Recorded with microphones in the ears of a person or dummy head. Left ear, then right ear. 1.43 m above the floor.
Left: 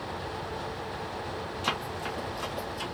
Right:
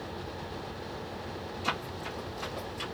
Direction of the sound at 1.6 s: 20° left (ahead or behind).